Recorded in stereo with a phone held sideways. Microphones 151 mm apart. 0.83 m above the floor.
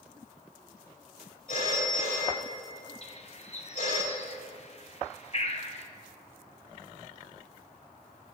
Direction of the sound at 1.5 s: 55° left (ahead or behind).